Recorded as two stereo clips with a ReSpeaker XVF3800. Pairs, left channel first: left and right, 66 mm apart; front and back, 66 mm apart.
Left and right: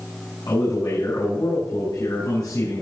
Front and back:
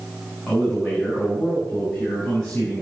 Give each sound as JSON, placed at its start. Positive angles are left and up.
{"t": 0.5, "sound": "a man speaking", "azimuth_deg": 80, "distance_m": 5.5}